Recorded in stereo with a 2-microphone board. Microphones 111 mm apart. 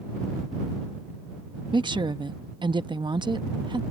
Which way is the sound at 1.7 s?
45° right (ahead or behind).